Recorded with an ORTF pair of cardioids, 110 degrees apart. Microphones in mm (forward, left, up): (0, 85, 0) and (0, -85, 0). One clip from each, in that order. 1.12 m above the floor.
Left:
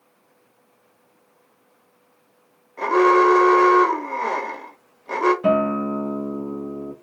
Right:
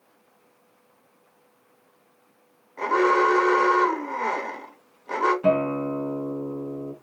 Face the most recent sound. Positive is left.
turn(degrees=0)